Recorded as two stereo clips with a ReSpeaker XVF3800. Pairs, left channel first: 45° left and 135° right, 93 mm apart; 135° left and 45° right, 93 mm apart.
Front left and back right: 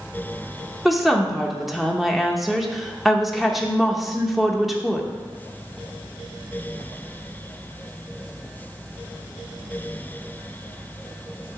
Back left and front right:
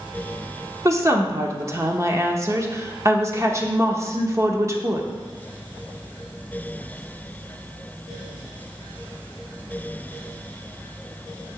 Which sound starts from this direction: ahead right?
A woman speaking, at 0.8 s.